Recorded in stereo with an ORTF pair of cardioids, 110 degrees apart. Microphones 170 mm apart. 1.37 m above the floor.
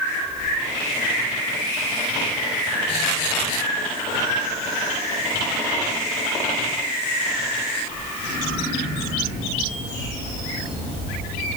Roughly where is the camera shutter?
I don't hear a camera shutter.